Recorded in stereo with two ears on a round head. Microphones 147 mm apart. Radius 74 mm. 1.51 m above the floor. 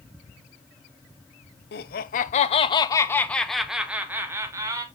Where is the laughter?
65° left (ahead or behind), 0.8 m; by 4.8 s 20° right (ahead or behind), 1.4 m.